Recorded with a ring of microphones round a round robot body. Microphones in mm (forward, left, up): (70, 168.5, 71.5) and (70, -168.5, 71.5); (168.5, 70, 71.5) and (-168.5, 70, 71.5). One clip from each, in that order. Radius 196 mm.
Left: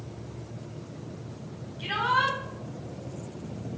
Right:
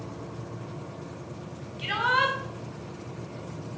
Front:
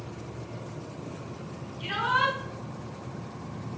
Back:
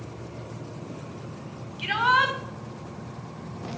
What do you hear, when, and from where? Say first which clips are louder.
1.8 s a shout: right 1 dB, back 4 dB; 155° right, 2.5 m